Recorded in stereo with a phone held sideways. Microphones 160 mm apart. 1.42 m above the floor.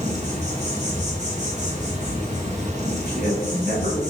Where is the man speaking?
70° right (ahead or behind), 1.4 m.